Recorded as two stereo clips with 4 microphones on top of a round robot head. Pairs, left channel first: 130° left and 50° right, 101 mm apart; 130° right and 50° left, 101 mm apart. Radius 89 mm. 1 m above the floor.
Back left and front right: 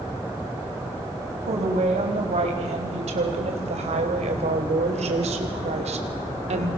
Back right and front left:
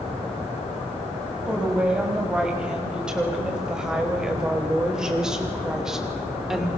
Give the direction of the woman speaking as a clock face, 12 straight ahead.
1 o'clock.